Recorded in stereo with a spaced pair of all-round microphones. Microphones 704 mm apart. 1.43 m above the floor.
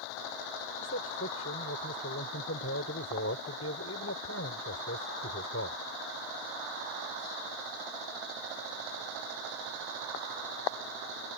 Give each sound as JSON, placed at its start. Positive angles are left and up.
{"t": 0.8, "sound": "a man speaking", "side_deg": 20}